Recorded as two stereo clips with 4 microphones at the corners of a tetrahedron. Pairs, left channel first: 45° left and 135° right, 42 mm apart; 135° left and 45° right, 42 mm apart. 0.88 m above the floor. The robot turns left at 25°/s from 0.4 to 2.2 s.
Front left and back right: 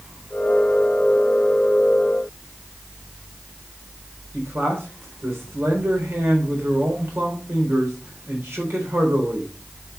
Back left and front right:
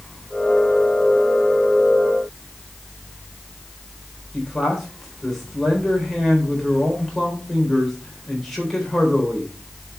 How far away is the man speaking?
About 4 m.